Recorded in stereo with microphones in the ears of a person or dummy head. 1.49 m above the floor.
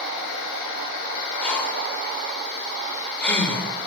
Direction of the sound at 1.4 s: 15° left (ahead or behind).